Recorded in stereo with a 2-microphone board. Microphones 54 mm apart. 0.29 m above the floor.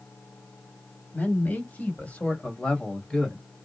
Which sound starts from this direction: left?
A man speaking, at 1.1 s.